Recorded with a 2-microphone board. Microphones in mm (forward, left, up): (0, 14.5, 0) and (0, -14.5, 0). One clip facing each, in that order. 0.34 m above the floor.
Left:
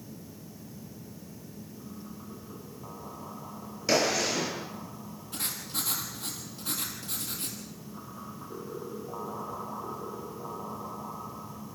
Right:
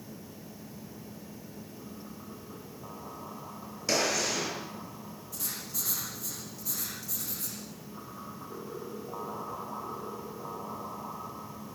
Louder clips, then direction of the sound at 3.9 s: Left 3 dB; 15° left (ahead or behind).